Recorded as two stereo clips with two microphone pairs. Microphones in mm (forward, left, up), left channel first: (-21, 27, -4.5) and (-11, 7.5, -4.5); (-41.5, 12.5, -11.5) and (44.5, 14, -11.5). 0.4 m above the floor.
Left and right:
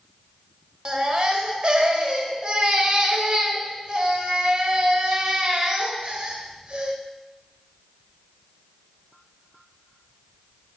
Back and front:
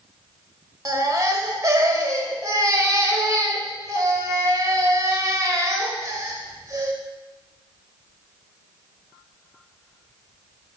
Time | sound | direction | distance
0.8 | a baby crying | 40° right | 1.0 m